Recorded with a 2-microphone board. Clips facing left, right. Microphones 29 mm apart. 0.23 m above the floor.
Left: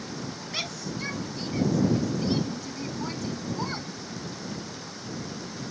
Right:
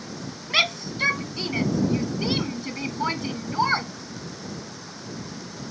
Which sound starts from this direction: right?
A shout, at 0.5 s.